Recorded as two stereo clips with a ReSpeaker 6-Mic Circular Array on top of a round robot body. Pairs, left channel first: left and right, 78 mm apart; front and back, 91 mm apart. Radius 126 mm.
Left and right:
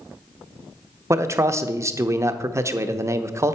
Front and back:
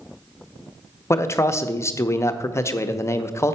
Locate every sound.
1.1 s a man speaking: 50° right, 0.8 m